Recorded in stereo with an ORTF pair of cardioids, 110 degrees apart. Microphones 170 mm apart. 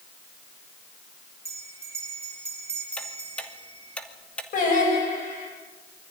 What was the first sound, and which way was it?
A bell, 15° right.